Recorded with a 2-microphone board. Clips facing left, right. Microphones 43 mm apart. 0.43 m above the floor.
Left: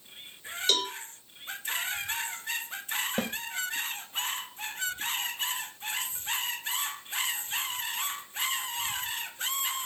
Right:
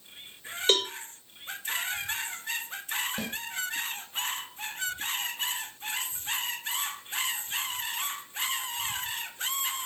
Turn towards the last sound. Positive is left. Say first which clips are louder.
# left 4 dB
turn(degrees=45)  # may be behind; listen again after turning